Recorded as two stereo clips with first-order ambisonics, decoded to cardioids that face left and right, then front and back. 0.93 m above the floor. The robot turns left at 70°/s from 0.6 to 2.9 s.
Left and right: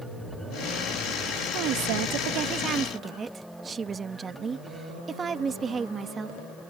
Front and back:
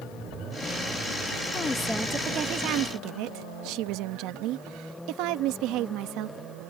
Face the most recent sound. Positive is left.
turn(degrees=-160)